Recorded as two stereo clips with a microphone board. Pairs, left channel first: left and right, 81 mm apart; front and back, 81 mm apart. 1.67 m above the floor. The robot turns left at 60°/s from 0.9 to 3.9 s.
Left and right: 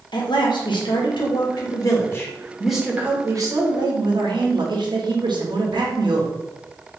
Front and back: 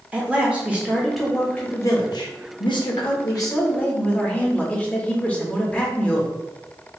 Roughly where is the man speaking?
Left.